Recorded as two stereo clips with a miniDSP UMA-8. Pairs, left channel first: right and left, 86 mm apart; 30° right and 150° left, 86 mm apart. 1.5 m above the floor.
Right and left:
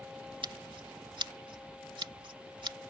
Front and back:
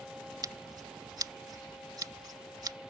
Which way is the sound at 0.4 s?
110° left.